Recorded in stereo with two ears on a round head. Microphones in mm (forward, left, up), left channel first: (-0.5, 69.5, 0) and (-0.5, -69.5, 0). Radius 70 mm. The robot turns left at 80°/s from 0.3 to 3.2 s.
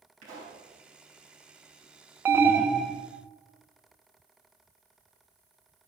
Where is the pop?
55° right (ahead or behind), 5.5 m; by 0.6 s 35° right (ahead or behind), 5.5 m.